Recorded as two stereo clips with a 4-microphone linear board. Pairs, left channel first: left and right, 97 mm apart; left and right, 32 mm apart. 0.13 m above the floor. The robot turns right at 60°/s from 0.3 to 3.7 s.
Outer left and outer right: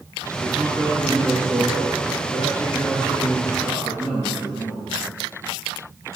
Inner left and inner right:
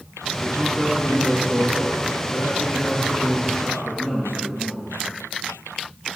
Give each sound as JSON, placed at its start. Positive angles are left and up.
{"t": 0.4, "sound": "a man speaking", "azimuth_deg": -45, "distance_m": 2.5}